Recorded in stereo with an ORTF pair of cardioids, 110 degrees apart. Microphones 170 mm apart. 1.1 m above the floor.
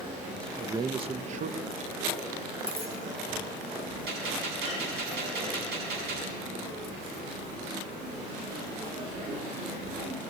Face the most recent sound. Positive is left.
turn(degrees=-70)